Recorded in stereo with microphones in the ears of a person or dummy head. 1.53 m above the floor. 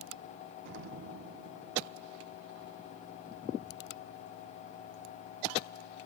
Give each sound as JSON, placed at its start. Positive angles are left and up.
{"t": 0.7, "sound": "an explosion", "side_deg": -60}